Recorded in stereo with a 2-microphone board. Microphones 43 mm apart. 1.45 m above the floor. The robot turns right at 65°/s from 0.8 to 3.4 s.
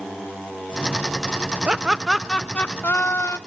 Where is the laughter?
25° right, 0.5 m; by 3.4 s 85° left, 0.5 m.